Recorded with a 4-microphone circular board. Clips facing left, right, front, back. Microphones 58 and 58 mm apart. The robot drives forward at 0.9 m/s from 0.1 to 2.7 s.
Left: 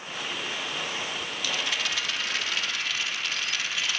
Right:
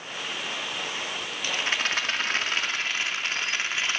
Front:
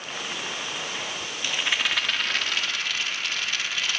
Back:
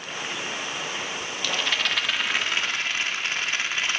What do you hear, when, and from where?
1.4 s a rattle: 55° right, 1.2 m; by 4.0 s 130° right, 1.3 m